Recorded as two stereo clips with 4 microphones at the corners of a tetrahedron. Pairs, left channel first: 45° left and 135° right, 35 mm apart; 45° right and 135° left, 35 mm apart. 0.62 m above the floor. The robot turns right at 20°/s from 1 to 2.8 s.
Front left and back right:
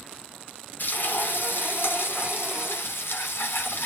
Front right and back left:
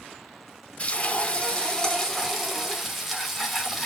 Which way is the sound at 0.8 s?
15° left.